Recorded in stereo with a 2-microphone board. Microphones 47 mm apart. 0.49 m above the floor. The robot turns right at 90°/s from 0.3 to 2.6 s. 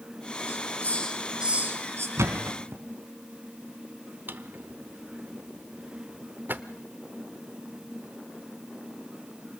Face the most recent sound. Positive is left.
turn(degrees=-45)  # may be behind; listen again after turning